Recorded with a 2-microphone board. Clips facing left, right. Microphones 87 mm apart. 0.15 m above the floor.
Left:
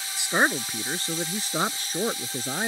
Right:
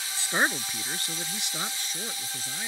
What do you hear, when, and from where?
0.2 s a man speaking: 15° left (ahead or behind); by 2.7 s 55° left (ahead or behind)